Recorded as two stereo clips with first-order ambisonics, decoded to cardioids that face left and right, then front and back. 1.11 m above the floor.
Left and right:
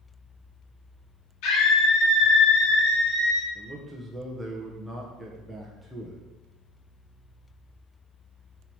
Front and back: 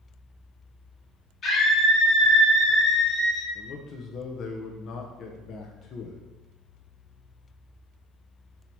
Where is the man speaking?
5° right, 0.7 m.